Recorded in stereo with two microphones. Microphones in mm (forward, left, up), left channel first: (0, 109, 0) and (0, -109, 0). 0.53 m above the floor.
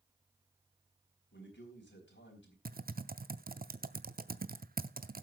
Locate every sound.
1.3 s a man speaking: 60° left (ahead or behind), 4 m
2.6 s typing on a keyboard: 45° right (ahead or behind), 0.7 m